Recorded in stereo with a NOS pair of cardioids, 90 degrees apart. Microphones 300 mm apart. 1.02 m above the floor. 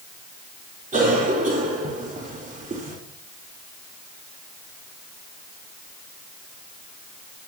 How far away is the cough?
About 3.5 m.